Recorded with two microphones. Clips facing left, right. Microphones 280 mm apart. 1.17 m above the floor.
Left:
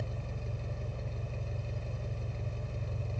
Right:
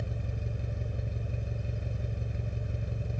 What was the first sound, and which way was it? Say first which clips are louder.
An engine running: right 2 dB; 20° right (ahead or behind).